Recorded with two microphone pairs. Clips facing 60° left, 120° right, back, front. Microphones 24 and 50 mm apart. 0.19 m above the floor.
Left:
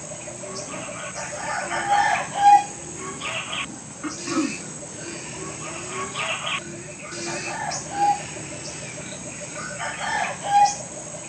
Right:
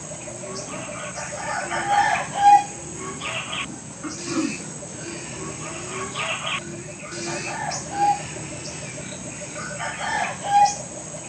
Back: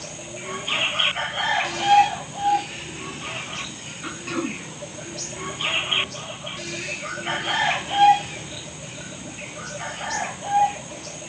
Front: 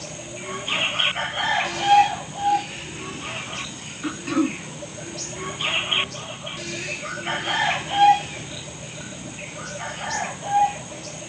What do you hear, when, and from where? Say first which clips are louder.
4.0 s throat clearing: left 1 dB, front 5 dB; 80° left, 0.6 m